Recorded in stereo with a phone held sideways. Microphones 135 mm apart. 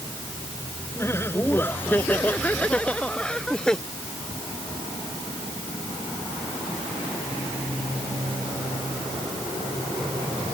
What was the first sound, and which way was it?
Laughter, 20° left (ahead or behind).